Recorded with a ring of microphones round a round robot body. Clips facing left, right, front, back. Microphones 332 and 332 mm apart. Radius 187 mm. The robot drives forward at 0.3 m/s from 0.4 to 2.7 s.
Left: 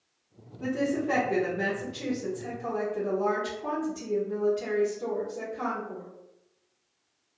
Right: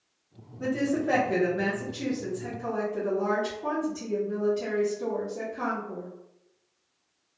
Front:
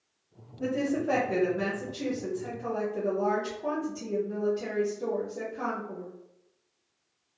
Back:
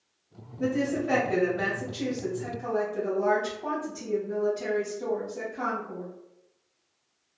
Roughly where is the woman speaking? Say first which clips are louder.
Right 1 dB, back 1 dB; right.